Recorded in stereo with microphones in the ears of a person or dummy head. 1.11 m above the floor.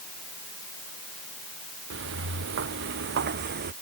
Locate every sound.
1.9 s footsteps: 70° right (ahead or behind); by 3.7 s 50° right (ahead or behind)